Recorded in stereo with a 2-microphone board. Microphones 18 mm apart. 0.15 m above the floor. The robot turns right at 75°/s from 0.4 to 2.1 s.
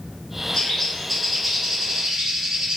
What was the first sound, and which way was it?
A bird, 125° left.